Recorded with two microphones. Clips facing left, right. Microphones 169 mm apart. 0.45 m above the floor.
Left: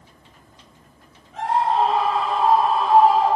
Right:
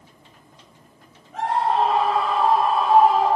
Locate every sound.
1.3 s a scream: 50° right (ahead or behind), 9.5 m; by 3.4 s 55° right (ahead or behind), 12.5 m